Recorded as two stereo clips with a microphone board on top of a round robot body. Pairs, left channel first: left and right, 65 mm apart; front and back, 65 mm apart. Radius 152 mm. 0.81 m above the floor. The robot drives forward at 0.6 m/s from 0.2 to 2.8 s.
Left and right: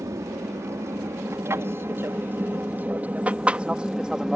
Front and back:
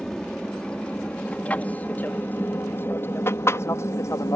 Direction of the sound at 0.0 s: 75° right.